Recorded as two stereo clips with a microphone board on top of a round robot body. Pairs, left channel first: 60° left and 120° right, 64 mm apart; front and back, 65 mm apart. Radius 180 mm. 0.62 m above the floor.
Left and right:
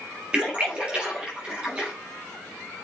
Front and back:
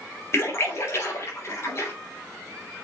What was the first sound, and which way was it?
A splash, 45° right.